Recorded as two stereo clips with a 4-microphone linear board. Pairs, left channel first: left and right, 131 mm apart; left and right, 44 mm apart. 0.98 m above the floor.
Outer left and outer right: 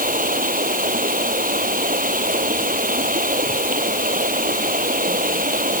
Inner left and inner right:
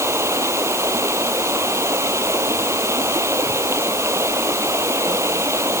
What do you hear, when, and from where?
0.0 s running water: 90° right